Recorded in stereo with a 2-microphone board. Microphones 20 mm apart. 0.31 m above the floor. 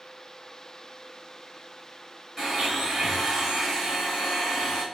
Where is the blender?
25° right (ahead or behind), 1.7 m.